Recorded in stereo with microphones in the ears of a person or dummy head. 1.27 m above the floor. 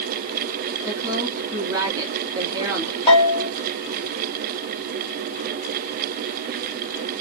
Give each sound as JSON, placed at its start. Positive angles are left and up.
{"t": 0.8, "sound": "a woman speaking", "side_deg": -20, "distance_m": 2.0}
{"t": 3.1, "sound": "a bell", "side_deg": 30, "distance_m": 2.5}